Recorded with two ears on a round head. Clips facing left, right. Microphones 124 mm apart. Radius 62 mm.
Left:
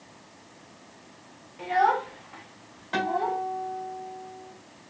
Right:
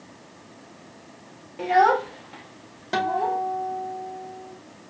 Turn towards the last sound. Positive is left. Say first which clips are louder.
# right 3 dB
turn(degrees=-50)  # may be behind; listen again after turning